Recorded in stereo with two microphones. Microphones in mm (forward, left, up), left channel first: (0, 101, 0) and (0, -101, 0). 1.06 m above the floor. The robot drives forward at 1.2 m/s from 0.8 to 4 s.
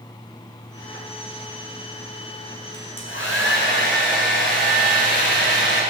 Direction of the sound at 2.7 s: 85° left.